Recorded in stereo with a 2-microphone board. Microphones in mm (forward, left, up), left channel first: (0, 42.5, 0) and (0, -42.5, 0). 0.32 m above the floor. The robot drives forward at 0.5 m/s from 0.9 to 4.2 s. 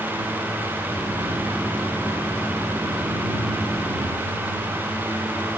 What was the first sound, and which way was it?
Only background noise.